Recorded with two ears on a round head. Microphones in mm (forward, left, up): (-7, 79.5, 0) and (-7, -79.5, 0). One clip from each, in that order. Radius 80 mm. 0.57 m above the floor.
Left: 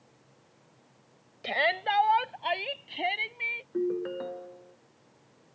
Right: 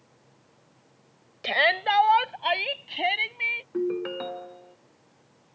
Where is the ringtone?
55° right (ahead or behind).